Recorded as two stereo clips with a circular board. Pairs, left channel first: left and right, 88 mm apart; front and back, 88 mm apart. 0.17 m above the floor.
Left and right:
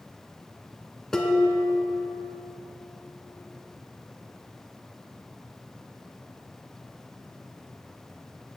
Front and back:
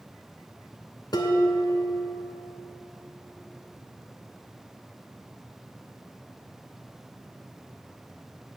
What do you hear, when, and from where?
1.1 s dishes clattering: 10° left, 1.2 m